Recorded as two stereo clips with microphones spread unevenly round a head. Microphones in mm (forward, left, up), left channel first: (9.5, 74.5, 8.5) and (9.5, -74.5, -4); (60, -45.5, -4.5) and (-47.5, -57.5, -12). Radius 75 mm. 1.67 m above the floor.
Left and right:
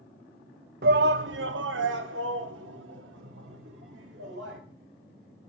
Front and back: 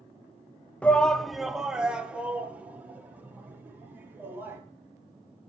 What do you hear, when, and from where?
0.8 s a shout: 70° right, 0.8 m; by 4.6 s 100° right, 3.5 m